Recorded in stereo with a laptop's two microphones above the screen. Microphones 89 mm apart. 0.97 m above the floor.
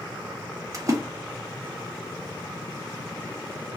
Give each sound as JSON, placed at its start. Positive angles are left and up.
{"t": 0.7, "sound": "a splash", "side_deg": -40, "distance_m": 0.6}